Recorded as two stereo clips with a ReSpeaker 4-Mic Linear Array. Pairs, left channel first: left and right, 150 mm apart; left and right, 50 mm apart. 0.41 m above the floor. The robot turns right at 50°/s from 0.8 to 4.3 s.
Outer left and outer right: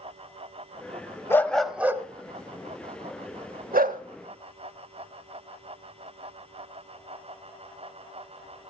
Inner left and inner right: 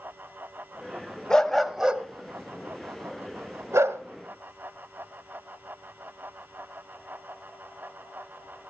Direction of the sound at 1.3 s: 15° left (ahead or behind).